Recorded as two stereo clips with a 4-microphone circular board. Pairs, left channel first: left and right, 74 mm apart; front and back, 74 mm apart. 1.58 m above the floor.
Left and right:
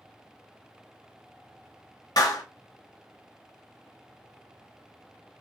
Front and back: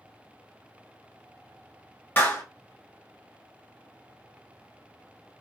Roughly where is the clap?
Ahead left.